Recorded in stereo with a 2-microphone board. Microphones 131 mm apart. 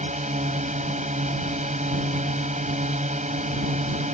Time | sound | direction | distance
0.0 | a drone | 70° right (ahead or behind) | ?